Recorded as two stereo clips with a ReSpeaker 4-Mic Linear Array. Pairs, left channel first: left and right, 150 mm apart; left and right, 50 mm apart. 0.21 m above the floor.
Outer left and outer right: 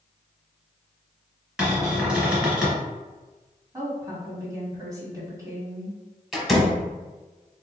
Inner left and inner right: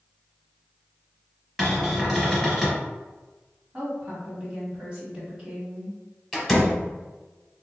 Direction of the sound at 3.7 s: 20° right (ahead or behind).